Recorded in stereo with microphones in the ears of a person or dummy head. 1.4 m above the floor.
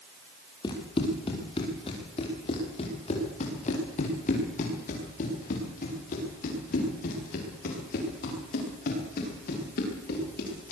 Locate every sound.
0.6 s running footsteps: 25° left (ahead or behind), 5 m; by 10.7 s 50° left (ahead or behind), 11.5 m